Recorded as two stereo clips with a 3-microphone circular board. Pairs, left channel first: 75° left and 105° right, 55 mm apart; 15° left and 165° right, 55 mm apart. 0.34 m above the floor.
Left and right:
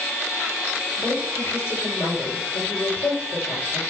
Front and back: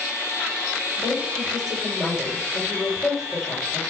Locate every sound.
1.0 s a woman speaking: 100° left, 6.5 m